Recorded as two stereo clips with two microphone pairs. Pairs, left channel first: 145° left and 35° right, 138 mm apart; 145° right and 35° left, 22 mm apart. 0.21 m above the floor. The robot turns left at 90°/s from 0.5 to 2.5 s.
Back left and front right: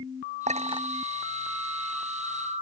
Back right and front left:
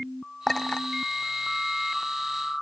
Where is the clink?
65° right; by 0.9 s 100° right.